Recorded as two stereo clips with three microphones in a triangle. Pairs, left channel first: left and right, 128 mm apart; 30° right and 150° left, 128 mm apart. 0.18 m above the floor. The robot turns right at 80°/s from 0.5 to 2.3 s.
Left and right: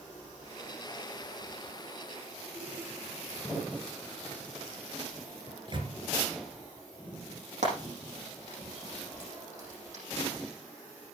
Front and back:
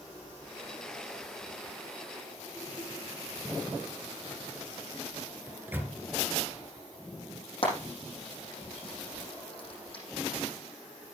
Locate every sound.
5.5 s a microwave: 135° right, 2 m
7.6 s frying: 70° right, 7 m